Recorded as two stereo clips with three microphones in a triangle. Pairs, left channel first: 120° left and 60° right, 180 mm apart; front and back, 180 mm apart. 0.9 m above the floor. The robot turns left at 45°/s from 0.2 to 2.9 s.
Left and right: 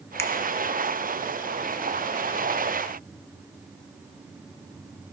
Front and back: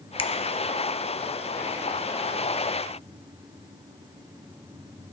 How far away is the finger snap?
About 0.7 m.